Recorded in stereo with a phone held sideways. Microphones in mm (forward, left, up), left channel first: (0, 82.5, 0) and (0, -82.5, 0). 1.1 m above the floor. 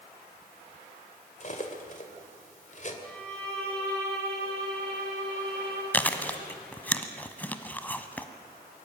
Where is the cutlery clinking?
50° left (ahead or behind), 2.5 m.